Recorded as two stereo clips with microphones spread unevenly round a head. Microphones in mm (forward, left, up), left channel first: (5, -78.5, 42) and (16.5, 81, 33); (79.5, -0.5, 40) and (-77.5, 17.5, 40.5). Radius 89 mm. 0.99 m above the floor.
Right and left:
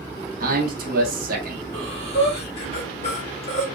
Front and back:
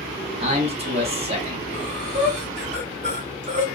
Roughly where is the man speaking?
Behind left.